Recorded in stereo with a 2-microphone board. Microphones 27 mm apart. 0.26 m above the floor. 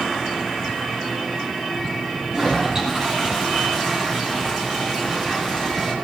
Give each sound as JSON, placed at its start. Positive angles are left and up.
{"t": 2.3, "sound": "a toilet flushing", "side_deg": -25, "distance_m": 9.0}